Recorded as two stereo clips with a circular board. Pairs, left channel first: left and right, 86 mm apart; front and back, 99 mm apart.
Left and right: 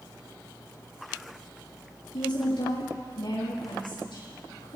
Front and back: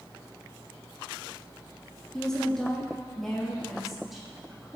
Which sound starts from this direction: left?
A woman speaking, at 2.1 s.